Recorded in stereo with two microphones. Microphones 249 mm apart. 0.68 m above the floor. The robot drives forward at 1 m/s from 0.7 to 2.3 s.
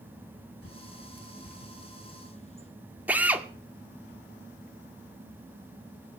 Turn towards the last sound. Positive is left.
turn(degrees=-5)  # may be behind; listen again after turning